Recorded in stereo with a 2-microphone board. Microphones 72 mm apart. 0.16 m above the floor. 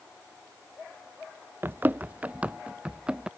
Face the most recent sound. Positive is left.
turn(degrees=-15)  # may be behind; listen again after turning